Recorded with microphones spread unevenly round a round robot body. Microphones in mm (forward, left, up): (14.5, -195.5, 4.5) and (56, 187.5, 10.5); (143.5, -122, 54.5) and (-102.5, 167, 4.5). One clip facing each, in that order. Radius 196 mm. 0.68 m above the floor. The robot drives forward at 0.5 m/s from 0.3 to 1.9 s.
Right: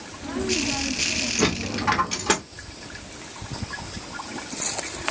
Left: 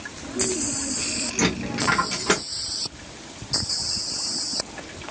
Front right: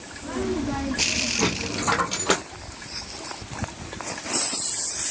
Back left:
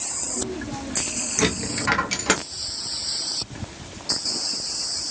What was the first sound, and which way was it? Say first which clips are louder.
A dropped coin: even, back left 3 dB; 175° left.